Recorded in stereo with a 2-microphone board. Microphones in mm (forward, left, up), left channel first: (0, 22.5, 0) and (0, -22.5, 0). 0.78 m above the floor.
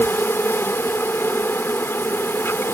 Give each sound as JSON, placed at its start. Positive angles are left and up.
{"t": 0.0, "sound": "an insect", "side_deg": 65}